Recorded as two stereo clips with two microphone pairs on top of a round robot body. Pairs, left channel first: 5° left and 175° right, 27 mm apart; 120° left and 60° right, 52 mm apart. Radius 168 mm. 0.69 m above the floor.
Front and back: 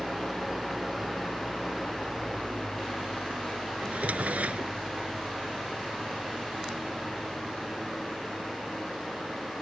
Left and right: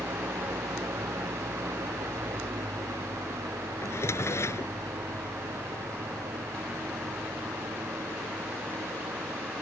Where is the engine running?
90° right.